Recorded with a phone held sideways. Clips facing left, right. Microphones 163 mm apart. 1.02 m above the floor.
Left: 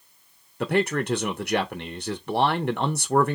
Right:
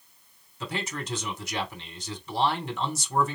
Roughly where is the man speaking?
Left.